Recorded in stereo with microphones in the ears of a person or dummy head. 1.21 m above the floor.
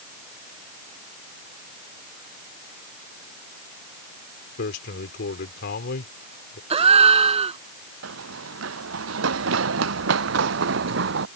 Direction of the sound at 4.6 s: 55° left (ahead or behind).